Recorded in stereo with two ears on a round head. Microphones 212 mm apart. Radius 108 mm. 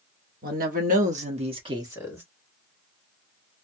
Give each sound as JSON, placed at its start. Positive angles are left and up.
{"t": 0.4, "sound": "a woman speaking", "side_deg": -40, "distance_m": 1.3}